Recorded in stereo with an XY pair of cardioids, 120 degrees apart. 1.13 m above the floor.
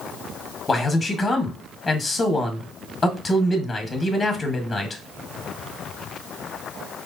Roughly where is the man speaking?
Ahead left.